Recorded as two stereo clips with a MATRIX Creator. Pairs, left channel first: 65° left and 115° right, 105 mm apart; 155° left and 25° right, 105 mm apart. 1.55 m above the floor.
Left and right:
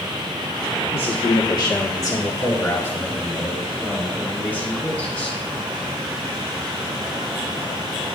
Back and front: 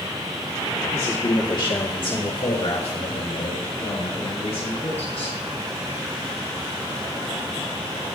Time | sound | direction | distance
0.9 | a man speaking | 90° left | 1.1 m